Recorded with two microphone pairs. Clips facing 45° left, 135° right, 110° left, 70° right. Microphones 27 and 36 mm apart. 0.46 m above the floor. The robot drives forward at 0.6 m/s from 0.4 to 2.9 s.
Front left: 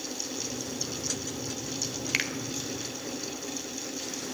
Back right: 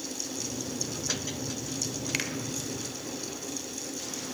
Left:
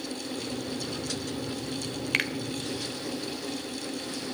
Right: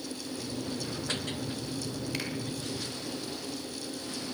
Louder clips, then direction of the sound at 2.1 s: Front left 4 dB, left 11 dB; 110° left.